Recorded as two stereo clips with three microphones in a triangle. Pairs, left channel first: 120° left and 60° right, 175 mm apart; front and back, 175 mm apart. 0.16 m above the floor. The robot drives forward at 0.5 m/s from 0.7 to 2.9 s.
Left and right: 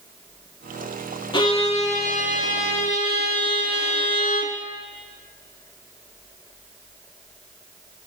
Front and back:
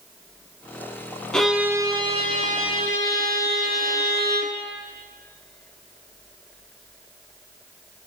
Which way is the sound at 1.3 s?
80° left.